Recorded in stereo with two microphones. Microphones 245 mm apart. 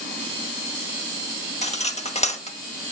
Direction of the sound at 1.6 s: 30° left (ahead or behind).